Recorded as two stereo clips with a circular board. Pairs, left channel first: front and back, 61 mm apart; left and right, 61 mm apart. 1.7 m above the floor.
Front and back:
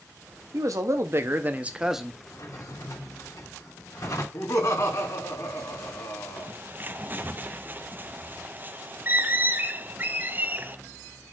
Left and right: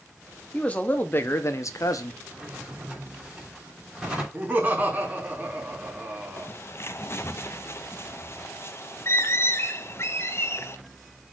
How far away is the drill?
I don't hear a drill.